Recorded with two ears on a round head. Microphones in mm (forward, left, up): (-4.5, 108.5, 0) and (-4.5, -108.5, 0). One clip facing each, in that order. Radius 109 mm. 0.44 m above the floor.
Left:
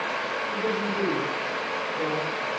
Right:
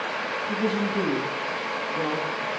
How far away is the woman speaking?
About 3 m.